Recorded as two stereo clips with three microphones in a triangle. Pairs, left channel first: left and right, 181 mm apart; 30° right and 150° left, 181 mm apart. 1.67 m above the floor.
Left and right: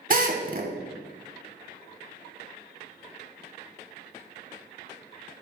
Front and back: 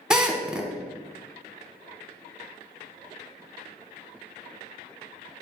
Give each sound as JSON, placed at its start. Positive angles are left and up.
{"t": 0.1, "sound": "a drill", "azimuth_deg": -125, "distance_m": 1.2}